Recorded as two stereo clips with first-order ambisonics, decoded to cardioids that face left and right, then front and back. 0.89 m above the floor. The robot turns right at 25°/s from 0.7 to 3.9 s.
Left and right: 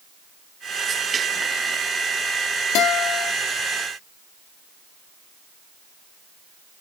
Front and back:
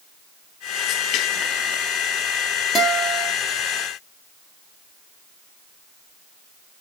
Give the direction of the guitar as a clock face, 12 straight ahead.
10 o'clock.